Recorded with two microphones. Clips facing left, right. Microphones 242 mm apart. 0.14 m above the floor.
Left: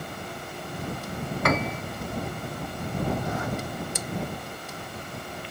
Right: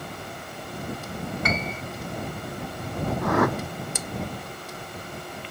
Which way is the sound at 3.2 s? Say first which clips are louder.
Right 8 dB; 75° right (ahead or behind).